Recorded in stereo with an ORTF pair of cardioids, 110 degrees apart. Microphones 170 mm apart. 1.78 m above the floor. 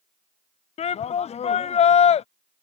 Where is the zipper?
No zipper in this recording.